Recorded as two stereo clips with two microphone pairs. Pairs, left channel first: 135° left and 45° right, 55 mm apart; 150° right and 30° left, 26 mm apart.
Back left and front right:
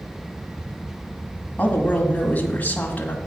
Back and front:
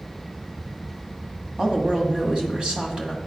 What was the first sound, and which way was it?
A woman speaking, 85° left.